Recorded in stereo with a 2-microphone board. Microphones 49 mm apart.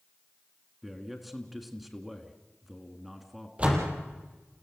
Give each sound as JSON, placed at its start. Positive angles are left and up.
{"t": 0.8, "sound": "a man speaking", "side_deg": -5, "distance_m": 2.0}
{"t": 3.6, "sound": "a door slam", "side_deg": -25, "distance_m": 4.0}